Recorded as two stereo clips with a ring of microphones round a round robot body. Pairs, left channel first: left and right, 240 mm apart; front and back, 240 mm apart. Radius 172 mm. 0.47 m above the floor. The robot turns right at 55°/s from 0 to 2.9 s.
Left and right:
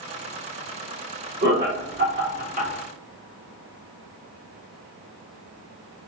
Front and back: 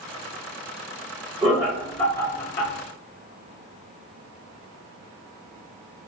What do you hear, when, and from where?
1.4 s laughter: 120° right, 1.0 m; by 2.7 s 45° right, 1.0 m